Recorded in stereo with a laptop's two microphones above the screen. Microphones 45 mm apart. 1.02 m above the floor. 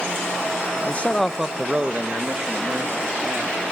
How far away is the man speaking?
About 0.9 m.